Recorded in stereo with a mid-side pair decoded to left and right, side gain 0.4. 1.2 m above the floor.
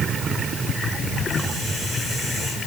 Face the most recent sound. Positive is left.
No sound to turn to.